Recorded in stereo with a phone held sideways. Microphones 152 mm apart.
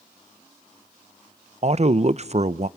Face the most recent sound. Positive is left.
turn(degrees=-50)  # may be behind; listen again after turning